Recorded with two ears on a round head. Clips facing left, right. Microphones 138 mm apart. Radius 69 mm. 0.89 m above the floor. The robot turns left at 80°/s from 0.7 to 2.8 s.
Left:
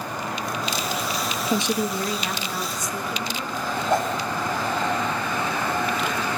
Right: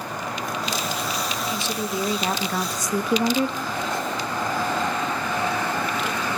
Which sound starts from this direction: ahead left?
A woman speaking, at 1.5 s.